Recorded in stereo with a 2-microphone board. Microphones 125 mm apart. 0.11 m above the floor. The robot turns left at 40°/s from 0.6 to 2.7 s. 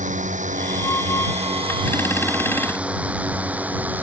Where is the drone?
75° right (ahead or behind); by 4.0 s 15° right (ahead or behind).